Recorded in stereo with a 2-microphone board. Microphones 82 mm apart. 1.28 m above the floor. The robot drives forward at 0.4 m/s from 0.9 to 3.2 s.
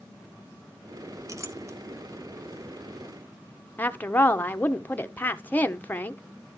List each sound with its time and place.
1.3 s a clink: 40° right (ahead or behind), 1.2 m; by 1.8 s 35° right (ahead or behind), 1.3 m
3.8 s a woman speaking: 20° left (ahead or behind), 0.9 m